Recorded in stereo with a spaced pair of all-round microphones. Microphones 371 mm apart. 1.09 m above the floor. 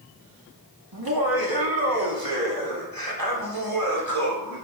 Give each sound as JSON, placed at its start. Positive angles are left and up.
{"t": 0.9, "sound": "laughter", "side_deg": -70, "distance_m": 2.0}